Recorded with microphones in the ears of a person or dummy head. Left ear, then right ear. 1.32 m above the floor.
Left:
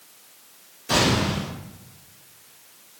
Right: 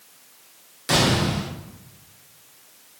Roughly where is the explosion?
Right.